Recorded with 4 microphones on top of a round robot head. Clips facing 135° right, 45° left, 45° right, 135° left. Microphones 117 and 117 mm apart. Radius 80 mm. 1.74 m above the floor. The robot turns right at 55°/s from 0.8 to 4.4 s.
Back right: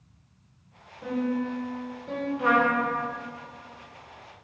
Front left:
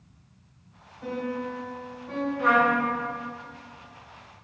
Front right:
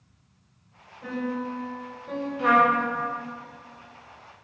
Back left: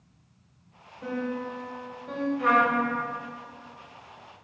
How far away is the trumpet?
About 0.8 m.